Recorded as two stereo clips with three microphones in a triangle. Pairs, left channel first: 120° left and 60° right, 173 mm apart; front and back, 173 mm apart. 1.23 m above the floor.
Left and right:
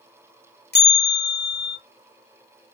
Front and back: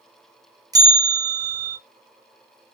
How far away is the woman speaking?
I don't hear a woman speaking.